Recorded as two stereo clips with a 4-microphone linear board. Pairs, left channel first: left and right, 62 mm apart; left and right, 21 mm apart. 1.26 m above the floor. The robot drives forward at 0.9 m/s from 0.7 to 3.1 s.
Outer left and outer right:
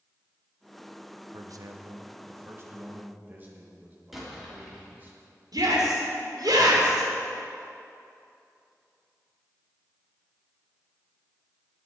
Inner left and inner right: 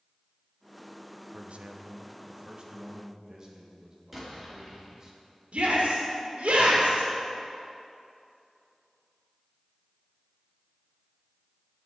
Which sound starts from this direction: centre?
An explosion, at 4.1 s.